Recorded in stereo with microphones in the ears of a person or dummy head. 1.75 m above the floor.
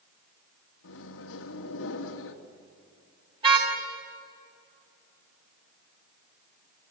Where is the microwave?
70° left (ahead or behind), 2.0 m.